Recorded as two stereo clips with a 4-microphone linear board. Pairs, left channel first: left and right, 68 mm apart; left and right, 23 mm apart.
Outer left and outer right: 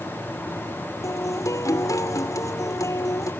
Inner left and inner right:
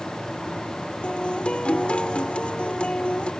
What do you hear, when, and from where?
1.0 s a guitar: 55° left (ahead or behind)